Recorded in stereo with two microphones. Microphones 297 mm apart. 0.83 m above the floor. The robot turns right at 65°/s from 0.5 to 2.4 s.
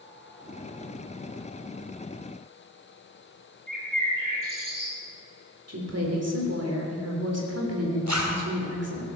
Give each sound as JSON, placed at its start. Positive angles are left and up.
{"t": 3.7, "sound": "a bird", "side_deg": -85, "distance_m": 5.5}
{"t": 5.7, "sound": "a woman speaking", "side_deg": -50, "distance_m": 3.5}
{"t": 8.1, "sound": "a zipper", "side_deg": -65, "distance_m": 2.5}